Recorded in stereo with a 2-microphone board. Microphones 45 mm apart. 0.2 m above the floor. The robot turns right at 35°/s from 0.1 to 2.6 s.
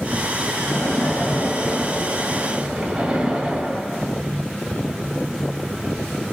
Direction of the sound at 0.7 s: 135° left.